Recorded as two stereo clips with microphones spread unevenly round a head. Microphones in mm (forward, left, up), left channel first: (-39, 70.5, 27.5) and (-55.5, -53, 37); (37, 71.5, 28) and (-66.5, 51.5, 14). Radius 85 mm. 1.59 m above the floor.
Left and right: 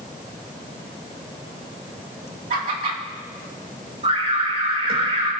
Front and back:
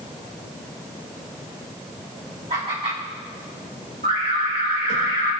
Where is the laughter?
115° right, 2.5 m.